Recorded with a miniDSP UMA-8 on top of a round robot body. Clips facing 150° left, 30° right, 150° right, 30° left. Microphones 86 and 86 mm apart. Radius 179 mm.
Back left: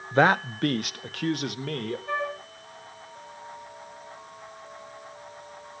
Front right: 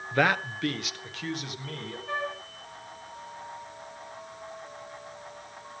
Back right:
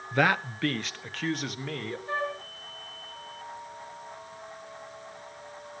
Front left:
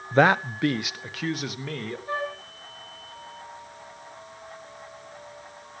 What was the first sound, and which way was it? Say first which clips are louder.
A man speaking: back left 4 dB, front left 6 dB; 85° left.